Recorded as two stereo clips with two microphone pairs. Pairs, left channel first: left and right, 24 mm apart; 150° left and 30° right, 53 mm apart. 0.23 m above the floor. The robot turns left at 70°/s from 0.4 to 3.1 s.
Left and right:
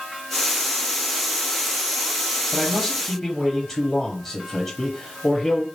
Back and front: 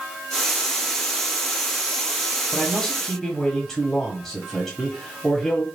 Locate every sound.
2.5 s a man speaking: 120° left, 1.1 m; by 5.7 s 80° left, 1.1 m